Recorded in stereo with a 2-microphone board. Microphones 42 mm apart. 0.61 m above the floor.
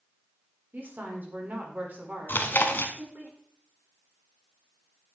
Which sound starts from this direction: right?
A woman speaking, at 0.7 s.